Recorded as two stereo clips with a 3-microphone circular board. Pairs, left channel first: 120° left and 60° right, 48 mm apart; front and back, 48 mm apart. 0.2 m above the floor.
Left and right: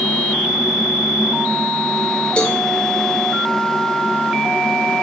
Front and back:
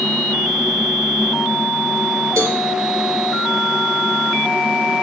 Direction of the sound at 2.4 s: Straight behind.